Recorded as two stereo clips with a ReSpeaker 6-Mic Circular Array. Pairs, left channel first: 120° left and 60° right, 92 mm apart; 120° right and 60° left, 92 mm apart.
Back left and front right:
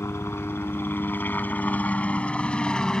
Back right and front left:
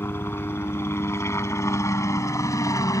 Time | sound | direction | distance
0.0 | a helicopter | straight behind | ?